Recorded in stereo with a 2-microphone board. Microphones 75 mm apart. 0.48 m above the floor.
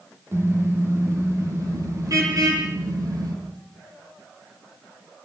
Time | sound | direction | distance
0.3 | a car horn | 35° right (ahead or behind) | 7 m